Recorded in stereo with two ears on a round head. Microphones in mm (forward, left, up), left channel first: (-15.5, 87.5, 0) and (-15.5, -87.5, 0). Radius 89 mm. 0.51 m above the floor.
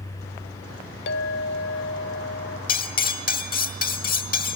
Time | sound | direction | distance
1.1 | a clink | 55° left (ahead or behind) | 1.0 m
2.7 | cutlery clinking | 45° left (ahead or behind) | 1.3 m